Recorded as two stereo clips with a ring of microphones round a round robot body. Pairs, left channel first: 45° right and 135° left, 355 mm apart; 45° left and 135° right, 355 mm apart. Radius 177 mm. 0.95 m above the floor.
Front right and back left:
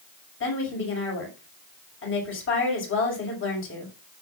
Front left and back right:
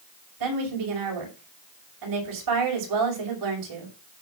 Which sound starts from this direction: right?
A woman speaking, at 0.4 s.